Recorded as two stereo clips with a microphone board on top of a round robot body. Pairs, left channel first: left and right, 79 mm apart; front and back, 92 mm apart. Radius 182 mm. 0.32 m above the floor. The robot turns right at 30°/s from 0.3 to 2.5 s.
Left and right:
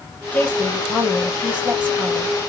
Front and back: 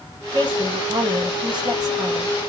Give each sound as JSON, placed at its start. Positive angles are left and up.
{"t": 0.3, "sound": "a woman speaking", "azimuth_deg": 160, "distance_m": 1.7}